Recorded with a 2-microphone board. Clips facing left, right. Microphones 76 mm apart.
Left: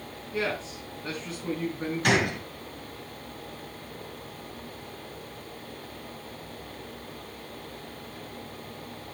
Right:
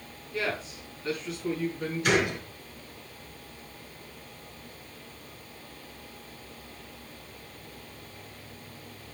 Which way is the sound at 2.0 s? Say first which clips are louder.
Left 1 dB; 65° left (ahead or behind).